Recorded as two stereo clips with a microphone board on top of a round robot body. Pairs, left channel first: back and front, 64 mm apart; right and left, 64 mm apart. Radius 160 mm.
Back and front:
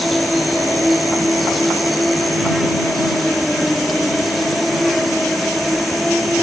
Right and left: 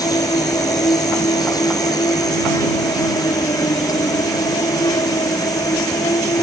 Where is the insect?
90° right.